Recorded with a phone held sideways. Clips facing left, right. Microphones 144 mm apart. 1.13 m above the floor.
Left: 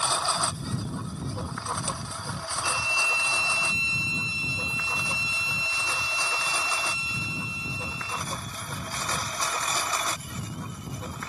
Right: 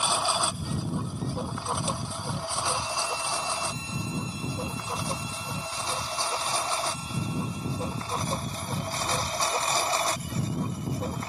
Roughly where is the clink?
I don't hear a clink.